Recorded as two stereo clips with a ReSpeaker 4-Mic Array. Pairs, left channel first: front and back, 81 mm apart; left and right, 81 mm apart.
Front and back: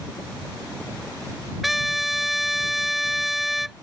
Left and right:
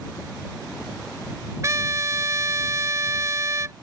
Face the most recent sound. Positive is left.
turn(degrees=-95)